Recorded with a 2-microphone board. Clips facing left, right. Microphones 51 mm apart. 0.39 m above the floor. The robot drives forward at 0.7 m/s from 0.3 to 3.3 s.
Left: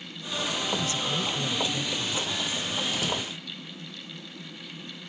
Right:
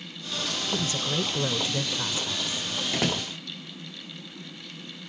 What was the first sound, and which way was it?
A woman speaking, 35° right (ahead or behind).